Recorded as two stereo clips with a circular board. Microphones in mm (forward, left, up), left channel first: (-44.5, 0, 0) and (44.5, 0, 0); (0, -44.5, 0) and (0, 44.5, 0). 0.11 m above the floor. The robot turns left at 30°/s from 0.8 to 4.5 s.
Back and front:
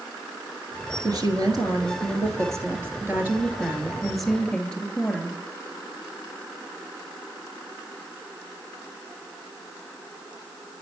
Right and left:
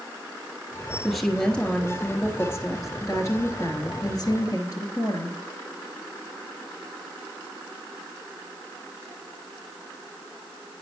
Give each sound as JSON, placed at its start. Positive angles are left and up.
{"t": 1.0, "sound": "a woman speaking", "azimuth_deg": 0, "distance_m": 1.5}